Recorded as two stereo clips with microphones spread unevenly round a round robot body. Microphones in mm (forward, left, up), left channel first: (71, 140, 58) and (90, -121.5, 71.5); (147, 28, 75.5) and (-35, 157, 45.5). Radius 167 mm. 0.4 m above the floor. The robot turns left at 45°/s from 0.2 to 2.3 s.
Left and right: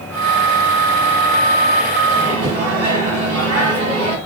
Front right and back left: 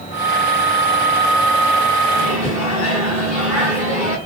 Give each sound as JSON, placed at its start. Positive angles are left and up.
{"t": 2.1, "sound": "a microwave", "azimuth_deg": -45, "distance_m": 1.5}